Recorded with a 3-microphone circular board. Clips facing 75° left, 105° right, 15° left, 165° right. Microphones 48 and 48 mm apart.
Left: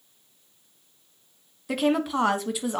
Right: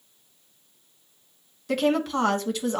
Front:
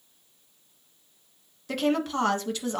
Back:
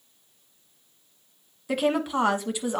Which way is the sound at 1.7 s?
140° left.